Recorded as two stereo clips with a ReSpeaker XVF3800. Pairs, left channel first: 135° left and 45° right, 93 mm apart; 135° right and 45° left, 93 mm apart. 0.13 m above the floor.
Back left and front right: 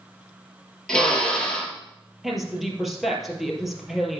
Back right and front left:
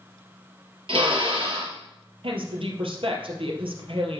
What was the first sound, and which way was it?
A drill, 55° left.